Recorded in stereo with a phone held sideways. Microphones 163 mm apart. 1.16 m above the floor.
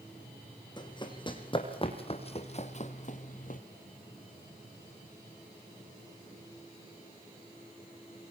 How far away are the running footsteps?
About 5 m.